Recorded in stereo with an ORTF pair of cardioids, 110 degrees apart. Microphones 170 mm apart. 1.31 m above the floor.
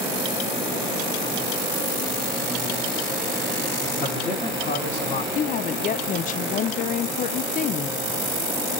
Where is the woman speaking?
50° left, 0.6 m.